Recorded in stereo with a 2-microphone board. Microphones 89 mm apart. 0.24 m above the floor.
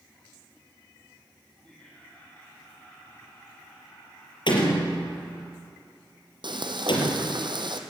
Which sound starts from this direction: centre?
Laughter, at 1.6 s.